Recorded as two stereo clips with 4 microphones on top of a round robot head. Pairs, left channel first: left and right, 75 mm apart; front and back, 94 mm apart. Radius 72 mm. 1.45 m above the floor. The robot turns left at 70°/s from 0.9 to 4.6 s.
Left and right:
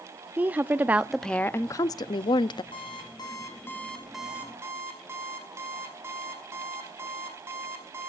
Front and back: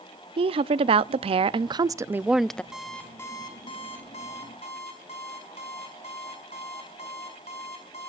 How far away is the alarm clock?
About 4.5 m.